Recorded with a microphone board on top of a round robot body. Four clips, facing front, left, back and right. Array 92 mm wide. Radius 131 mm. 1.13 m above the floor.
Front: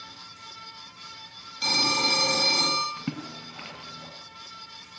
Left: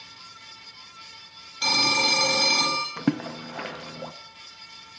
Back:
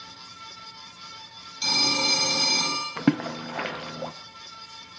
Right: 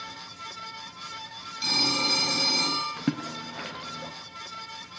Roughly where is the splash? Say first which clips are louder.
Left 3 dB, back 11 dB; behind.